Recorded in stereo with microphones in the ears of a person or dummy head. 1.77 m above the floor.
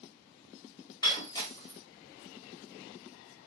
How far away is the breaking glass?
About 3 m.